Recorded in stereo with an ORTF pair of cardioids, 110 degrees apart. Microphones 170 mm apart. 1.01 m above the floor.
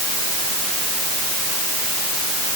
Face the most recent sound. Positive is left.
No sound to turn to.